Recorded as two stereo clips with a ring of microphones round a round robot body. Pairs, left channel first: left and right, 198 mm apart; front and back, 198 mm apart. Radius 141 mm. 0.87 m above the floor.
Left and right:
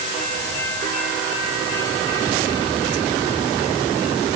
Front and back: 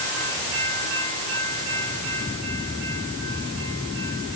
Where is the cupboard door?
I don't hear a cupboard door.